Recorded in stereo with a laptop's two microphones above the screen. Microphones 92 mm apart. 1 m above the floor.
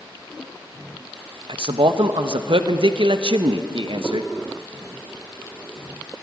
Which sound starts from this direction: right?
A man speaking, at 1.5 s.